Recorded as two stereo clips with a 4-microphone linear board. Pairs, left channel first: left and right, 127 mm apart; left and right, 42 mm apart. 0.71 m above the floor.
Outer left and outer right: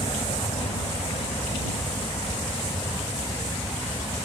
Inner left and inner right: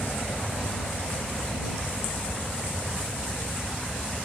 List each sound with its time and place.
0.0 s a helicopter: 50° left (ahead or behind)